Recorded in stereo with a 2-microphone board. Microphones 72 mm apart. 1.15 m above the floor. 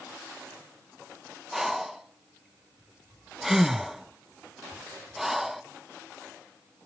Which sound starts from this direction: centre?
Breathing, at 1.5 s.